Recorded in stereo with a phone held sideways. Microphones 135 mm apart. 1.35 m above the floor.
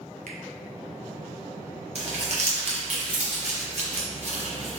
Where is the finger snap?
75° right (ahead or behind), 0.7 m.